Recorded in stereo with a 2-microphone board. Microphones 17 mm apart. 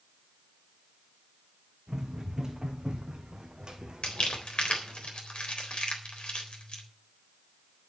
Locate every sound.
1.9 s running footsteps: 25° right (ahead or behind), 3.5 m; by 5.0 s 55° right (ahead or behind), 2.5 m
4.0 s crumpling: 60° left (ahead or behind), 3.5 m